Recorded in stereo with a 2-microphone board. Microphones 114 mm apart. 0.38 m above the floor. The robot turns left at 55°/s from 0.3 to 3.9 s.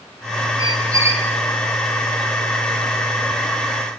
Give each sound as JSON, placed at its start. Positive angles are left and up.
{"t": 0.6, "sound": "a squeak", "azimuth_deg": -130, "distance_m": 3.5}